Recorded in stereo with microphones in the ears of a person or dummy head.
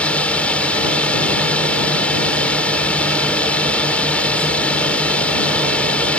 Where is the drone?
10° left (ahead or behind).